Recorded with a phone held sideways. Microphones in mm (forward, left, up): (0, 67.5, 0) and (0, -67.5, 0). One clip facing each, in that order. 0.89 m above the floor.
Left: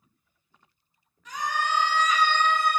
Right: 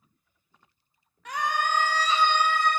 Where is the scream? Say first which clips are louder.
Right 1 dB; 65° right (ahead or behind), 0.8 m; by 2.8 s 15° left (ahead or behind), 0.6 m.